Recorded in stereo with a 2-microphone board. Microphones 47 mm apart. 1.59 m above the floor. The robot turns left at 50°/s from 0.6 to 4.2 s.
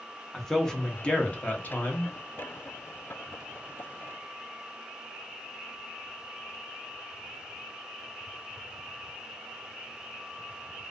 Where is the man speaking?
170° left, 0.6 m; by 2.1 s 90° left, 0.6 m.